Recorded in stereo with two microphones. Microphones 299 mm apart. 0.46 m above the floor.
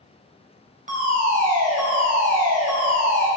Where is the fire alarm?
30° right (ahead or behind), 4 m.